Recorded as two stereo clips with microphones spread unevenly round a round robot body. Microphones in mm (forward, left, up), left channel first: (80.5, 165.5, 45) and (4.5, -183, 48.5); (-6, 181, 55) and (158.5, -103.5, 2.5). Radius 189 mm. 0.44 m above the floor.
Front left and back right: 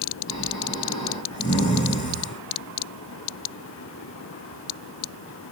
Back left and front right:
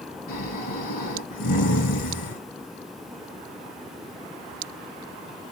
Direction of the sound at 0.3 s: 155° left.